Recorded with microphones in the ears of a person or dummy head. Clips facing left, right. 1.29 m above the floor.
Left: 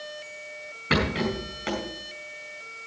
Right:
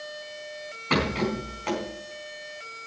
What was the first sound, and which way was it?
A rattle, 20° left (ahead or behind).